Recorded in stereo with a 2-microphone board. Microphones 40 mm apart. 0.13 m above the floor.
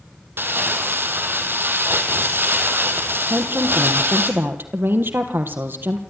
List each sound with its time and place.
0.4 s crumpling: 65° right (ahead or behind), 2.5 m
3.3 s a woman speaking: 60° right (ahead or behind), 3 m